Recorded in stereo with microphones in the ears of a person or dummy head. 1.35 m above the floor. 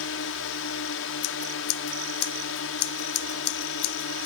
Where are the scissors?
90° left.